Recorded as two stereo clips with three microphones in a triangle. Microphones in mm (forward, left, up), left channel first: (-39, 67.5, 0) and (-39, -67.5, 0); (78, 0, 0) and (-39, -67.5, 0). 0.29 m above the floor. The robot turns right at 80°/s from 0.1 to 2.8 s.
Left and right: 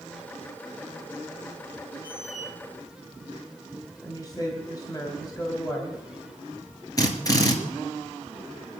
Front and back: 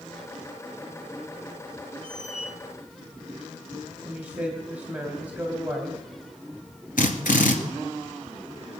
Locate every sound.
2.0 s a squeak: 40° left, 1.3 m; by 2.5 s 80° left, 1.3 m
4.0 s a woman speaking: 135° left, 2.0 m
7.0 s a drill: 30° left, 2 m